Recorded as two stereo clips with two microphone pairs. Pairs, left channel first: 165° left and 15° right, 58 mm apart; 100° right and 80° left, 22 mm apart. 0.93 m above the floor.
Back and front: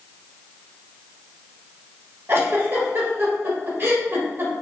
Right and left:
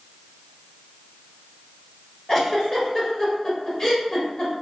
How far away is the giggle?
About 1.1 m.